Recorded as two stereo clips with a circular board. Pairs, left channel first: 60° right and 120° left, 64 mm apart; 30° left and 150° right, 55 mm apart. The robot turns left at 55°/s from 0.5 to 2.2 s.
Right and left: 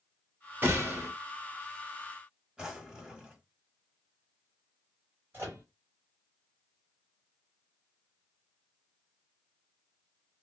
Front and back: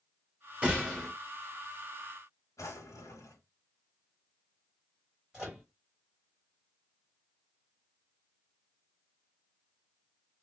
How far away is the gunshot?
About 1.3 m.